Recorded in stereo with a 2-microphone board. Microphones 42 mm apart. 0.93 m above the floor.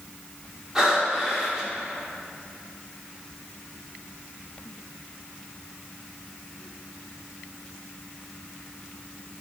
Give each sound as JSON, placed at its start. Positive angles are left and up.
{"t": 0.8, "sound": "breathing", "side_deg": -15, "distance_m": 1.8}